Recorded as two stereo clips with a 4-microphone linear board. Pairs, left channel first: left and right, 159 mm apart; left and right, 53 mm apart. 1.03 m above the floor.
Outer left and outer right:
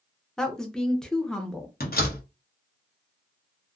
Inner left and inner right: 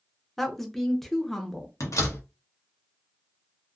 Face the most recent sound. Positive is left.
turn(degrees=70)  # may be behind; listen again after turning